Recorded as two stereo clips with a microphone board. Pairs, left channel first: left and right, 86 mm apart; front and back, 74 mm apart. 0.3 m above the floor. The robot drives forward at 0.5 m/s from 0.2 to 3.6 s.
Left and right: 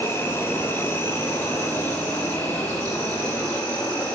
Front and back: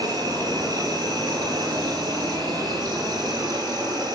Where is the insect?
155° left, 4 m; by 4.2 s 165° left, 5.5 m.